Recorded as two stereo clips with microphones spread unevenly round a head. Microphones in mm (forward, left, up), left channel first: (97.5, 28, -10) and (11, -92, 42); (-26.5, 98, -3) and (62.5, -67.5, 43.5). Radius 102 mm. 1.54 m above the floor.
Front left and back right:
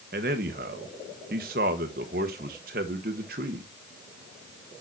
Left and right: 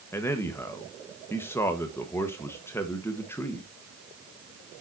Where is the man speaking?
160° right, 1.2 m.